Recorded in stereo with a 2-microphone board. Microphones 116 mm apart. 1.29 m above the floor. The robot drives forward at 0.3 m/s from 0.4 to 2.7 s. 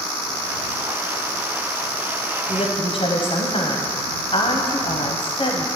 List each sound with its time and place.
2.5 s a woman speaking: 50° left (ahead or behind), 0.7 m